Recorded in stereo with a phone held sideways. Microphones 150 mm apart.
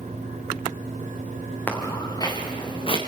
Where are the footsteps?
10° left (ahead or behind), 3.5 m; by 3.0 s 40° left (ahead or behind), 4 m.